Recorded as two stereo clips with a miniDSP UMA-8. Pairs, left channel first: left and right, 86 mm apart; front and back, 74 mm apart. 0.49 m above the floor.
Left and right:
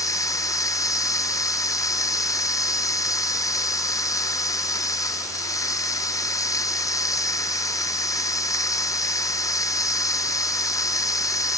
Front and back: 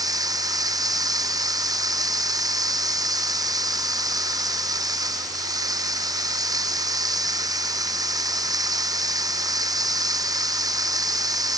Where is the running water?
140° left.